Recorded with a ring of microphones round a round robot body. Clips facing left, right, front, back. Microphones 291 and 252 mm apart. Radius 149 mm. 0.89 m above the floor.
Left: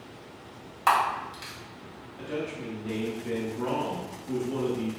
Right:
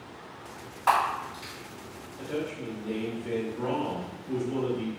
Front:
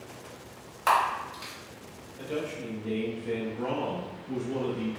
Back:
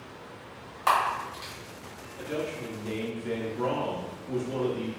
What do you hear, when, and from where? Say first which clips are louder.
0.9 s a camera shutter: even, even; 85° left, 1.6 m
2.2 s a man speaking: even, even; 160° left, 1.3 m